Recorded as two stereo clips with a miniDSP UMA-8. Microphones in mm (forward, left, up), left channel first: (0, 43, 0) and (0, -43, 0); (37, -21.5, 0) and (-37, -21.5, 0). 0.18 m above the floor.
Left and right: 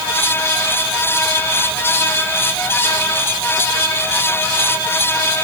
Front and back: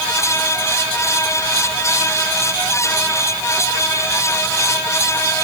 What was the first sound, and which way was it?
Only background noise.